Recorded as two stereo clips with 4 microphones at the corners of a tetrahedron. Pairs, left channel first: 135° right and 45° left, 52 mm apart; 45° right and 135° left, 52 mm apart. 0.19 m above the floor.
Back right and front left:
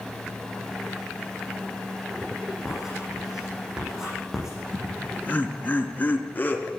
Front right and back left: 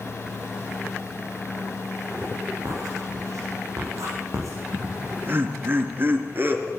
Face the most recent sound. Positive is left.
turn(degrees=175)